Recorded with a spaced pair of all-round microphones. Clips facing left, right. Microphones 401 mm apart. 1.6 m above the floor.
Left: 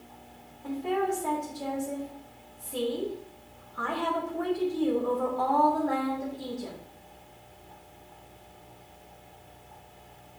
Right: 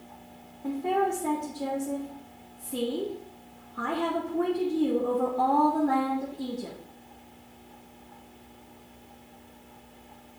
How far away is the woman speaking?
About 1.4 m.